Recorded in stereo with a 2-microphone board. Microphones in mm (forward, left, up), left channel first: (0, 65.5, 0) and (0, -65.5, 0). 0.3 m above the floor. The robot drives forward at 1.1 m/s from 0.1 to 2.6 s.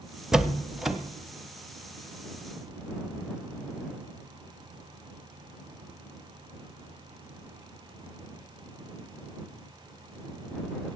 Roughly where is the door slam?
Centre.